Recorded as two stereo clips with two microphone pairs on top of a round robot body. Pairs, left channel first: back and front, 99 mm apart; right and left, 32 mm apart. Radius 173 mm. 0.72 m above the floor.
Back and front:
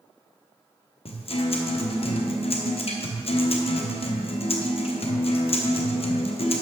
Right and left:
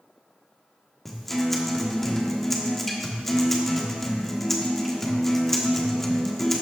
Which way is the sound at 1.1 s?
170° right.